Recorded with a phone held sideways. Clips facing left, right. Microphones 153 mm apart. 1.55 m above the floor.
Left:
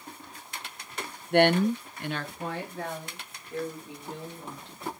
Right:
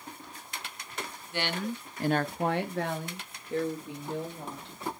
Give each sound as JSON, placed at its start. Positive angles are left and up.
{"t": 1.3, "sound": "a woman speaking", "side_deg": 60, "distance_m": 0.7}